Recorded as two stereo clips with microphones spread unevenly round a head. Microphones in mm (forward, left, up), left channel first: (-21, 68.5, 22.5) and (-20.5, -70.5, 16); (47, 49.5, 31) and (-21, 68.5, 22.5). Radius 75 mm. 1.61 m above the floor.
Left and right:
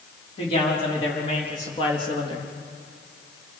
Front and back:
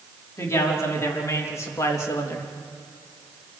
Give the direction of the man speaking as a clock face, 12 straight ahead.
11 o'clock.